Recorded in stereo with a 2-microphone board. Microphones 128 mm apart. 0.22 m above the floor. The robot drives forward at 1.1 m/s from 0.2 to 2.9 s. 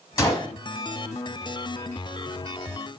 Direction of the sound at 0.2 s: 30° left (ahead or behind).